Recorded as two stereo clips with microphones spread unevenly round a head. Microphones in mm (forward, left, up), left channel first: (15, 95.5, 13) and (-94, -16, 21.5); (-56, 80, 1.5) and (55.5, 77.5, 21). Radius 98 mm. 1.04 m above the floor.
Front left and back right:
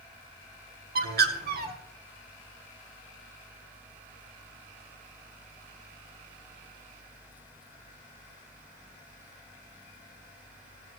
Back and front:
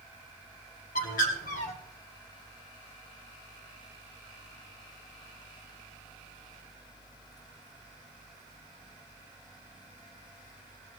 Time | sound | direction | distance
0.9 | a bird | 155° right | 1.8 m